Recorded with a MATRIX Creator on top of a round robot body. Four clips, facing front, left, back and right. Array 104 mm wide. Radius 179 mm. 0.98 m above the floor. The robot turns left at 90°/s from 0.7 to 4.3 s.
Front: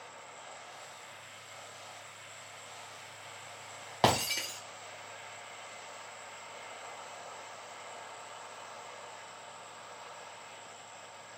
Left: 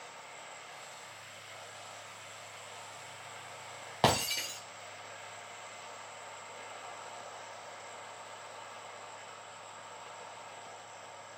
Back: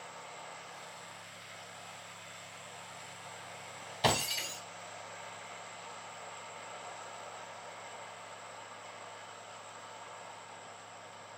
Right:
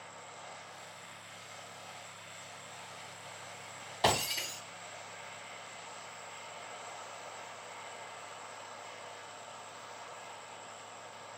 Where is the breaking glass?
40° left, 0.6 m; by 4.6 s 15° left, 0.6 m.